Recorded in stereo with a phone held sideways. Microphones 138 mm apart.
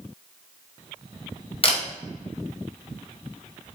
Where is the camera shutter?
45° left (ahead or behind), 0.9 m.